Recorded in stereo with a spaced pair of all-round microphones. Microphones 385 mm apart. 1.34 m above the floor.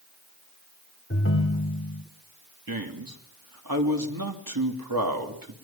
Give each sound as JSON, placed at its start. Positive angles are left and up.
{"t": 1.1, "sound": "a ringtone", "side_deg": 35, "distance_m": 1.4}
{"t": 2.7, "sound": "a man speaking", "side_deg": -60, "distance_m": 3.0}